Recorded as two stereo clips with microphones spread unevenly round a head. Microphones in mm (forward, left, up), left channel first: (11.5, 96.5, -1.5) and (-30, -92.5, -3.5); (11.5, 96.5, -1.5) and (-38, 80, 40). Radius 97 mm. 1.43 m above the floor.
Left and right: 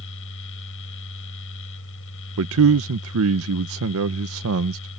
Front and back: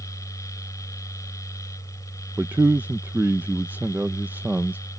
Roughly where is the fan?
Ahead left.